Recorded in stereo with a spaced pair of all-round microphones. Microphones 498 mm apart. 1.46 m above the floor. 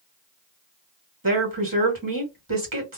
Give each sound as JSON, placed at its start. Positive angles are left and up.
{"t": 1.2, "sound": "a woman speaking", "side_deg": -45, "distance_m": 1.3}